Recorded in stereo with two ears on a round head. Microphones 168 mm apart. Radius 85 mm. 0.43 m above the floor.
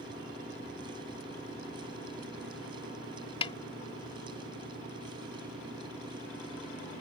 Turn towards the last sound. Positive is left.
turn(degrees=30)  # may be behind; listen again after turning